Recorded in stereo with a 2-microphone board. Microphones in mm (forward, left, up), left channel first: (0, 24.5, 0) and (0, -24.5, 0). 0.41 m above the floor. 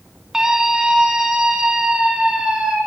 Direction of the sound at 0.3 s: 10° right (ahead or behind).